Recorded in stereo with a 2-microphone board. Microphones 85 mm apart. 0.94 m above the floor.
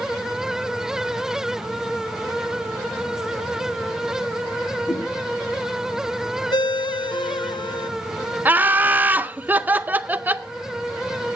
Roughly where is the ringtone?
Left.